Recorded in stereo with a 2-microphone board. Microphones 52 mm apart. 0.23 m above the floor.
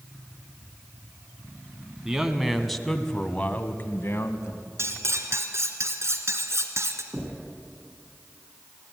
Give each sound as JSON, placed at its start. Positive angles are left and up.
{"t": 2.0, "sound": "a man speaking", "side_deg": -10, "distance_m": 1.6}
{"t": 4.8, "sound": "cutlery clinking", "side_deg": -60, "distance_m": 1.9}
{"t": 7.1, "sound": "knocking", "side_deg": -25, "distance_m": 6.0}